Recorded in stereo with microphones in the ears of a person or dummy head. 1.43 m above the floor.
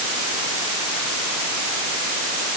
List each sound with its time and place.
Only background noise.